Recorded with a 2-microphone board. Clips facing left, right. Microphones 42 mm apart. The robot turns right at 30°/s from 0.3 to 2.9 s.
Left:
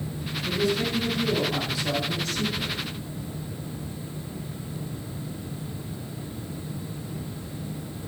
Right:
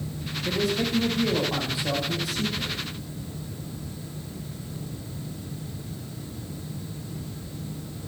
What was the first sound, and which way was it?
A man speaking, 65° right.